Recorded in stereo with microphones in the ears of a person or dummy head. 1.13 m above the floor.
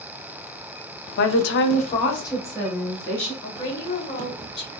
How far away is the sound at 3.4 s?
About 2 m.